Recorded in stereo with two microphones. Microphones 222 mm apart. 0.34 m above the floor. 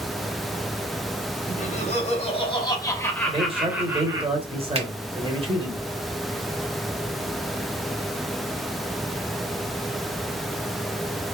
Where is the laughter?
35° left (ahead or behind), 1.8 m; by 4.3 s 20° right (ahead or behind), 1.2 m.